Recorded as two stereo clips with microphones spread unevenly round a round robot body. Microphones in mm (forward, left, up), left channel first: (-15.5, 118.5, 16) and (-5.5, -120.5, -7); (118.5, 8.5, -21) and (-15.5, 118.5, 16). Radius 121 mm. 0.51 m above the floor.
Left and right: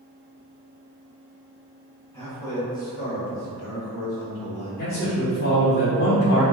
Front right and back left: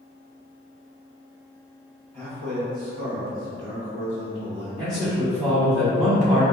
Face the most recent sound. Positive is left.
turn(degrees=75)